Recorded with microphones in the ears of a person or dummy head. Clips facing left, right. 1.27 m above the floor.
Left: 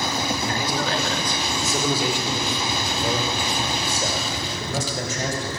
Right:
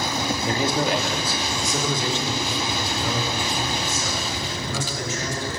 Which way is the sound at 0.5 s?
25° right (ahead or behind).